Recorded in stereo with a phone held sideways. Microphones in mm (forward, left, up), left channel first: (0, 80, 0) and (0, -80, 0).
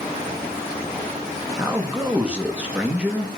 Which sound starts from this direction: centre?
A man speaking, at 1.6 s.